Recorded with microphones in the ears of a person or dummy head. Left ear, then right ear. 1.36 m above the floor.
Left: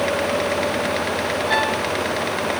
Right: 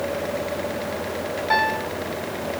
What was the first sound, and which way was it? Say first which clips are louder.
A piano: right 1 dB; 55° right (ahead or behind).